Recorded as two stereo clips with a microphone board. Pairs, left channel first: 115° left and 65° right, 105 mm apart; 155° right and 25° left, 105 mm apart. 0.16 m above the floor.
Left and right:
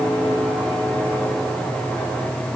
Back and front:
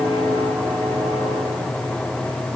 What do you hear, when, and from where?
Only background noise.